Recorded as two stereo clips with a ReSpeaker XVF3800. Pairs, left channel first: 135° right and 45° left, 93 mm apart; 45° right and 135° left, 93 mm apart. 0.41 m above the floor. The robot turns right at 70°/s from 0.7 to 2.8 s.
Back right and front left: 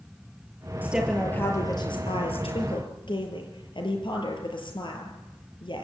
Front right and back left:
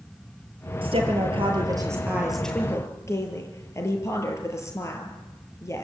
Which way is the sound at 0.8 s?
115° left.